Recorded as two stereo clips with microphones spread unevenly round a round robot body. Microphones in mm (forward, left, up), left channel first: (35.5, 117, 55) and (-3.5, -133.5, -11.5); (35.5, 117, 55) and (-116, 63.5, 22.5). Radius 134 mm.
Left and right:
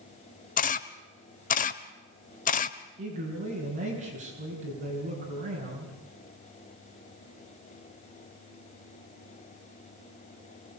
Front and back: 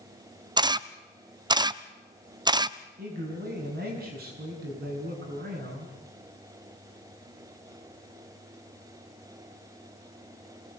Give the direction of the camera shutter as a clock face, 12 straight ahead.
7 o'clock.